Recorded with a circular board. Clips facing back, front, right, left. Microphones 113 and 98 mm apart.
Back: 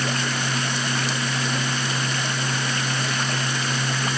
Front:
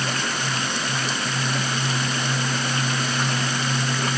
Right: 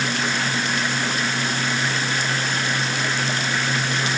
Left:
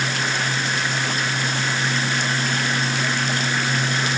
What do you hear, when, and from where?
Only background noise.